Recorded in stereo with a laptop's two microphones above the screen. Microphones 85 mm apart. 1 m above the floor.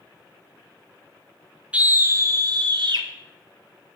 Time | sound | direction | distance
1.7 | a scream | 15° right (ahead or behind) | 0.6 m